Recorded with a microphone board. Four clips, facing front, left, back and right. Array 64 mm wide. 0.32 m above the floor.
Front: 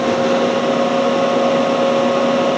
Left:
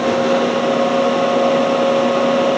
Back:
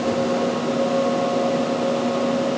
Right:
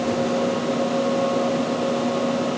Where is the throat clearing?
No throat clearing in this recording.